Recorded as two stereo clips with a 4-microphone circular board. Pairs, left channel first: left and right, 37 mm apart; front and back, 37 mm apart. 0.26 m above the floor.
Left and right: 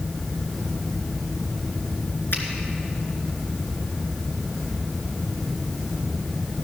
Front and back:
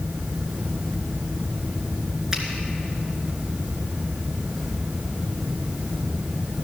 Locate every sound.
2.3 s a finger snap: 105° left, 2.5 m